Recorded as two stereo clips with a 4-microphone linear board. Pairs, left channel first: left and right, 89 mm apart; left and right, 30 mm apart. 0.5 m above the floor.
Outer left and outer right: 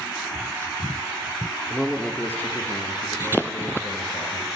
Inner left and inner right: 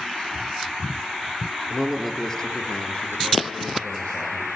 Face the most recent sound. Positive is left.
turn(degrees=60)  # may be behind; listen again after turning